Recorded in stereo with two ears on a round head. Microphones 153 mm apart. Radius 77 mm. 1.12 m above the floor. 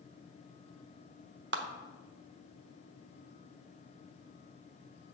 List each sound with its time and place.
1.5 s a clap: 65° right (ahead or behind), 0.7 m